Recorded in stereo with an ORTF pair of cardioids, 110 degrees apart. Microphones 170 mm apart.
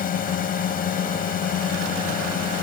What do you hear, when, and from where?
0.0 s a drone: 55° left